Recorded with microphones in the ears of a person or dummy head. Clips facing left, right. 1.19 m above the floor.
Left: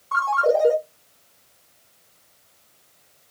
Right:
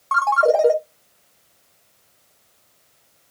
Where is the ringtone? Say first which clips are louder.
Right 3 dB; 75° right (ahead or behind), 0.9 m.